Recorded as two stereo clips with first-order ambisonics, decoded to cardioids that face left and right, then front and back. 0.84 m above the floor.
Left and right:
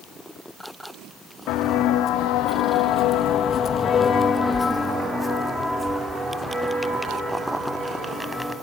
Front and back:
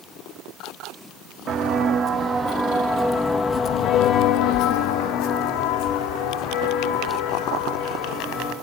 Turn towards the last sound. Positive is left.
turn(degrees=-25)